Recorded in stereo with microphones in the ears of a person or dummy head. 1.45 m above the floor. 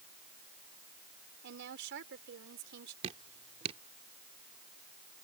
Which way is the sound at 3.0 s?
30° right (ahead or behind).